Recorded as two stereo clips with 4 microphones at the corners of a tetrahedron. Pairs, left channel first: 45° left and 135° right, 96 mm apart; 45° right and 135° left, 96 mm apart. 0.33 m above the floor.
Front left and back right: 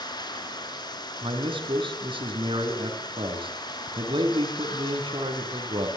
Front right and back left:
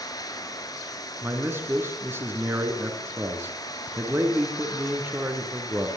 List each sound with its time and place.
0.0 s running water: 5° left, 2.5 m
1.2 s a man speaking: 160° right, 3.5 m